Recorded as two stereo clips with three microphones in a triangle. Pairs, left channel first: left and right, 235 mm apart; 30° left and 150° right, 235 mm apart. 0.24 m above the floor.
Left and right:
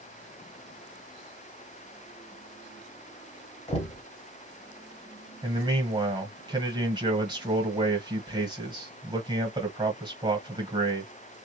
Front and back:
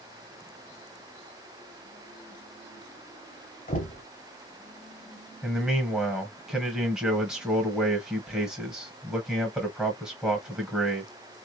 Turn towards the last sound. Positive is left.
turn(degrees=-70)